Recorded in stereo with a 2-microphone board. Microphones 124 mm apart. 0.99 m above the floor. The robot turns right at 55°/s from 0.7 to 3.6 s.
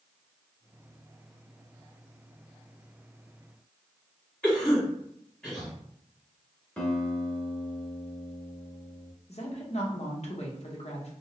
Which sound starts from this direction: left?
A woman speaking, at 9.3 s.